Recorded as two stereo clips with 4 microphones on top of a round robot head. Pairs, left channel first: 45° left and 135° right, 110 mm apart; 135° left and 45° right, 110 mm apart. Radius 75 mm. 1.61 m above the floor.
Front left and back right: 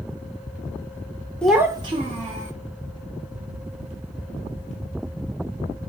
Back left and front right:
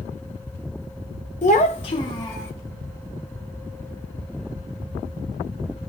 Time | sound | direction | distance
1.4 | a child speaking | 125° left | 0.6 m